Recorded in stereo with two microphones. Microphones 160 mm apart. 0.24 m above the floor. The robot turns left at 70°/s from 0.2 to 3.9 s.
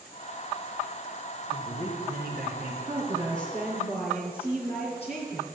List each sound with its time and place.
1.5 s a man speaking: 30° right, 3.5 m; by 2.7 s 120° right, 3.5 m
2.8 s a woman speaking: 150° right, 3.5 m; by 5.4 s 135° left, 3.5 m